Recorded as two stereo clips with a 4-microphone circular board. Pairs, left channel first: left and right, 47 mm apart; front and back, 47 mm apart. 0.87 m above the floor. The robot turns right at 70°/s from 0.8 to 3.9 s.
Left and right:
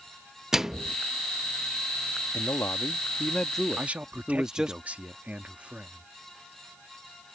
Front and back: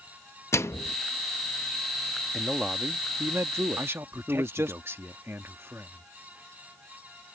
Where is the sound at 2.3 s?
85° left; by 4.8 s 165° right.